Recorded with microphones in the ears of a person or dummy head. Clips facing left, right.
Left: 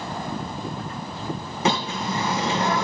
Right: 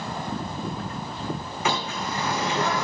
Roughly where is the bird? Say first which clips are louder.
Left 4 dB; left.